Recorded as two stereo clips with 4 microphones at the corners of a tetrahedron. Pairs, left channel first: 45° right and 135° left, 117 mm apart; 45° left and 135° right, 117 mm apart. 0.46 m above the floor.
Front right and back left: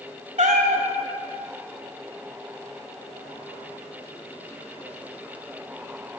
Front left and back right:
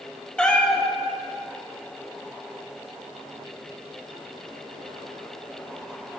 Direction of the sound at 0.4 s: 130° left.